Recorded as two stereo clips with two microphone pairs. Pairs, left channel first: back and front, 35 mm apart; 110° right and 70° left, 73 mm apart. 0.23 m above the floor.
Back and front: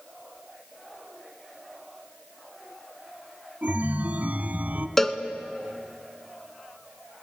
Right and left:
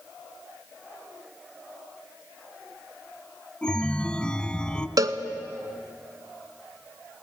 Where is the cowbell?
100° left, 1.1 m.